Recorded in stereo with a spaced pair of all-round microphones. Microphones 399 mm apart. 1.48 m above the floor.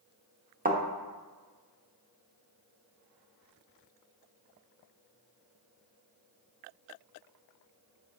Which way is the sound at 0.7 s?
20° right (ahead or behind).